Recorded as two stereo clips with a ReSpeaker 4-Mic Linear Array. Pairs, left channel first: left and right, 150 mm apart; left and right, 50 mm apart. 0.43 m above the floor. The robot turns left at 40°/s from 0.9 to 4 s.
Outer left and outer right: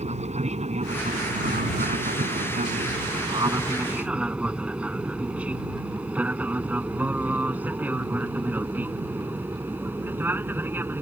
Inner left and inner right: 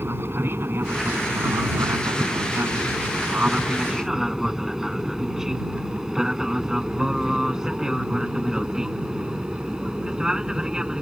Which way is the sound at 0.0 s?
50° right (ahead or behind).